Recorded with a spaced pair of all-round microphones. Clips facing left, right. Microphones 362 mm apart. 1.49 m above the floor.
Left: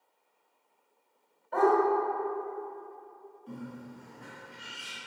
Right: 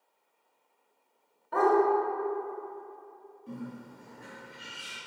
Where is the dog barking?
50° right (ahead or behind), 1.7 m.